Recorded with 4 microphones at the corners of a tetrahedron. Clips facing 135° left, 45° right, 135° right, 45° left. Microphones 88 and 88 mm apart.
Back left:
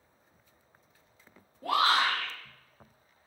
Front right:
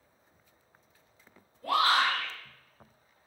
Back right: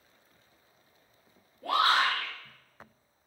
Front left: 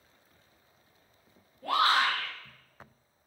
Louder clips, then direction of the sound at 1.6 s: Even, even; 150° left.